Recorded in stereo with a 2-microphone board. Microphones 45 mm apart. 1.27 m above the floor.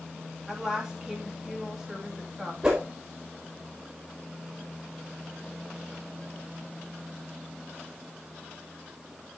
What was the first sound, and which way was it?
A woman speaking, 10° right (ahead or behind).